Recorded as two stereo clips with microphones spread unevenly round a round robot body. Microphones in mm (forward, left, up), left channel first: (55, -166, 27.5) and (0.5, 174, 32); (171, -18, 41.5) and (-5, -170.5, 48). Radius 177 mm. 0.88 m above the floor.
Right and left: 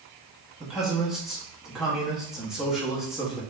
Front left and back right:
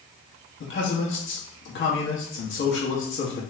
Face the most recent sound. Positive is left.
turn(degrees=10)